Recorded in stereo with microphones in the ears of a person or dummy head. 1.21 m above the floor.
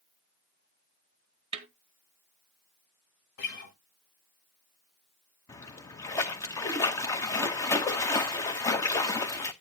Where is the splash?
15° left (ahead or behind), 0.8 m.